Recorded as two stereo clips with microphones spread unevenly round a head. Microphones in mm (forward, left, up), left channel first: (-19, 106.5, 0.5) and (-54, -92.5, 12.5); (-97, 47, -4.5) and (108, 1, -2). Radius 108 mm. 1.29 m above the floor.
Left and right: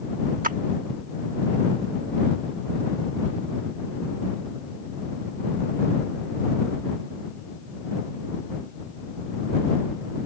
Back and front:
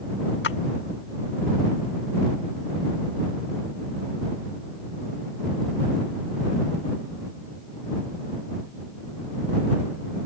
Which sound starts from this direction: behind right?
A splash, at 0.4 s.